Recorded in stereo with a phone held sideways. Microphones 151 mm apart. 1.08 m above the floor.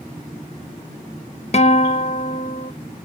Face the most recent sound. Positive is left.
turn(degrees=45)  # may be behind; listen again after turning